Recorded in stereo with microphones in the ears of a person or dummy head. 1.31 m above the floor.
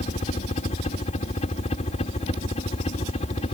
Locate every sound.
0.0 s a helicopter: 35° left (ahead or behind)